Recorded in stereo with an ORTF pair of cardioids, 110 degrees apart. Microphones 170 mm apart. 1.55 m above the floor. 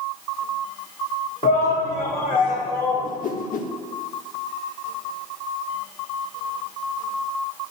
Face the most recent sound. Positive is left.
turn(degrees=50)